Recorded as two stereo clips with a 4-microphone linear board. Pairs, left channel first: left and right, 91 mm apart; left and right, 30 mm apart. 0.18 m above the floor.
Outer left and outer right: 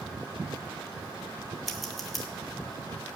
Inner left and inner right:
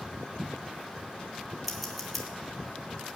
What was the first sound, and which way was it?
Scissors, centre (ahead or behind).